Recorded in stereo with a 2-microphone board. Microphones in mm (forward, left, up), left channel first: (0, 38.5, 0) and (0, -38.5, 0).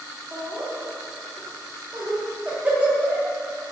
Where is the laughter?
15° right (ahead or behind), 1.2 m.